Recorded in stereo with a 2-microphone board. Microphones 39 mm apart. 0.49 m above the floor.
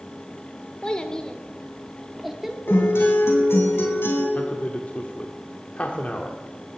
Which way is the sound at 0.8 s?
25° left (ahead or behind).